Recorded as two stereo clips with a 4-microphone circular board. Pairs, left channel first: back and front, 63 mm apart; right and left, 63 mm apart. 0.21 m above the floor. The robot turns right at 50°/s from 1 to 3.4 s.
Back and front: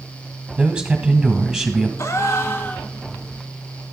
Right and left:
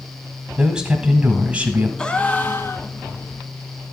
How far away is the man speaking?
About 1.5 m.